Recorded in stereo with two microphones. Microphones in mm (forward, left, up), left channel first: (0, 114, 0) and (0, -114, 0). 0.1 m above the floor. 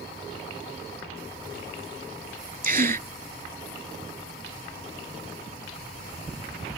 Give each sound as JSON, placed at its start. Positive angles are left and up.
{"t": 2.6, "sound": "a gasp", "side_deg": -40}